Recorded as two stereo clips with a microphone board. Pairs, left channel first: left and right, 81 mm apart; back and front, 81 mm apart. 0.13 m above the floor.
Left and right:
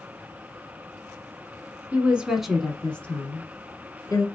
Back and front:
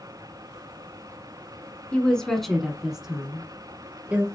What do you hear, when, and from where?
1.9 s a woman speaking: 125° right, 1.2 m; by 4.2 s 60° left, 1.7 m